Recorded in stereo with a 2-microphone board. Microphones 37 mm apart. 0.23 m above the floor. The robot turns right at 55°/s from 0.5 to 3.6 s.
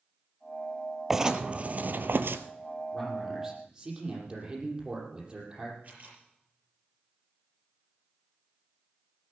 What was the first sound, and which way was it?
Writing, 170° right.